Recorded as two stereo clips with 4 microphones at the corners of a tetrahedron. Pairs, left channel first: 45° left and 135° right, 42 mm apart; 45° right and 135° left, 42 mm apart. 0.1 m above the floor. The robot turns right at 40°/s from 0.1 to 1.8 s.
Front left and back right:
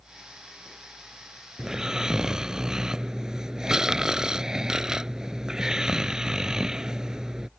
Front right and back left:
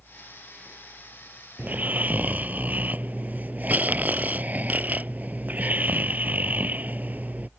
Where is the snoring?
145° left; by 7.5 s 155° left.